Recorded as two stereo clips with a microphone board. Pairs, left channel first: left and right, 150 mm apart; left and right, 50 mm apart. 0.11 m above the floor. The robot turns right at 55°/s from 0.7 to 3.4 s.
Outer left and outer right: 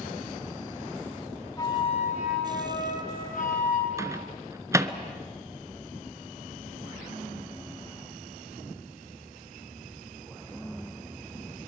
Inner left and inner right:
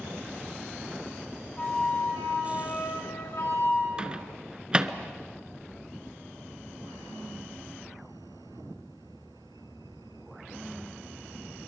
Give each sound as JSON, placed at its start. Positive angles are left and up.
{"t": 1.6, "sound": "a flute", "azimuth_deg": 20, "distance_m": 4.5}
{"t": 4.0, "sound": "a microwave", "side_deg": -20, "distance_m": 0.9}